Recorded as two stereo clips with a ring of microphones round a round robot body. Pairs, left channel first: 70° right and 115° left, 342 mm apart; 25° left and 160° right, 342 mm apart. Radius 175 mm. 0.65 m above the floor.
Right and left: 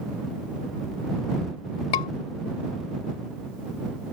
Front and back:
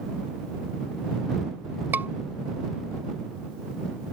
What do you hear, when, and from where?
1.9 s a scream: 75° right